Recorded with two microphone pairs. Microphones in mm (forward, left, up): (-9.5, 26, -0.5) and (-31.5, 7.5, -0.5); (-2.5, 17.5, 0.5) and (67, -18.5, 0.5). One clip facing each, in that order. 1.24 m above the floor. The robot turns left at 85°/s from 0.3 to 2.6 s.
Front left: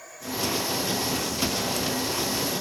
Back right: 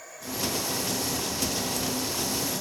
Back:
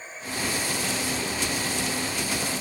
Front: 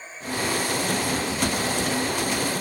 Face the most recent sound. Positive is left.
No sound to turn to.